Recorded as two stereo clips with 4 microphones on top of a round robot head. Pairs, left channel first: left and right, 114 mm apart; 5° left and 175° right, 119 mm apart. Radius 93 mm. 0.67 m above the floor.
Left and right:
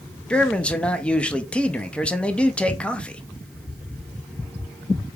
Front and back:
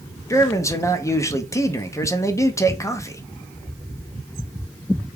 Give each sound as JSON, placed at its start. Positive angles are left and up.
{"t": 0.3, "sound": "a man speaking", "azimuth_deg": 20, "distance_m": 0.6}